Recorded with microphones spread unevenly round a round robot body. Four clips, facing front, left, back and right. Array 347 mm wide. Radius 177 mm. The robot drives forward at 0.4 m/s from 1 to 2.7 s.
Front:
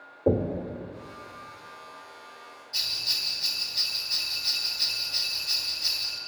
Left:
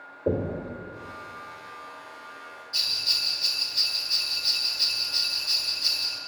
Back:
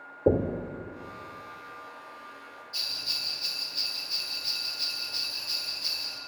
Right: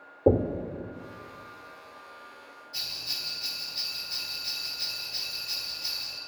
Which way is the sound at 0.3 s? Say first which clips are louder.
Right 4 dB, even; 135° right.